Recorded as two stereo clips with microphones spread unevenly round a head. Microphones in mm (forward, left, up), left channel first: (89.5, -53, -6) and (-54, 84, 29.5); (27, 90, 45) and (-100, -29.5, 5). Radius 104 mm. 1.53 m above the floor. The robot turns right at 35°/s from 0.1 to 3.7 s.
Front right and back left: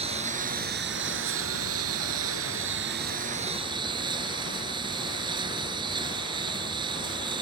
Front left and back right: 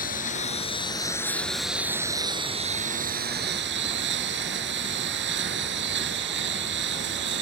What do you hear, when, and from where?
0.0 s a lawn mower: 80° left; by 7.4 s 155° right